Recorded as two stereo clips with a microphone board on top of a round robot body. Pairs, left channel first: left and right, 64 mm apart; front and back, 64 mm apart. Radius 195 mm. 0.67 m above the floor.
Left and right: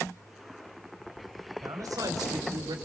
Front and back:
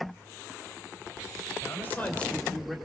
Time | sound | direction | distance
1.6 | a man speaking | 50° right | 2.5 m